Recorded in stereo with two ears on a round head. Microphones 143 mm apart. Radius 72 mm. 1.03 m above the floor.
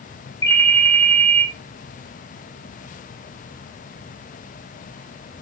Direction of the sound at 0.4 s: 20° left (ahead or behind).